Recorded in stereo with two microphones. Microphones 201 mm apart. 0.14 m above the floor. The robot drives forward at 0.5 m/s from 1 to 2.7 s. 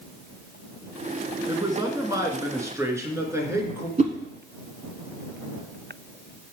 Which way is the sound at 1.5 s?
20° right (ahead or behind).